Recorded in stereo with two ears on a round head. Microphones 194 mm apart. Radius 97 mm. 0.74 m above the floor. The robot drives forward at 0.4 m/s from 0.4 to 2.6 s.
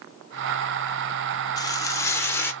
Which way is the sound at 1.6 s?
20° left (ahead or behind).